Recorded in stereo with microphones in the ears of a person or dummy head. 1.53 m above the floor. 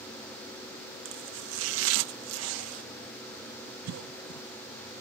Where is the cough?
85° right.